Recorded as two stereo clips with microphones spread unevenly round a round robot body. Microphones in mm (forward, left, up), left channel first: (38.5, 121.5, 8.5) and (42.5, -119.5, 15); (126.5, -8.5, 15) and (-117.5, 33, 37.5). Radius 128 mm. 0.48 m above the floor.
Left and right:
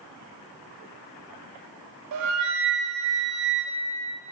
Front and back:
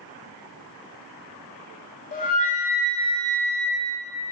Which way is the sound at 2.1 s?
70° right.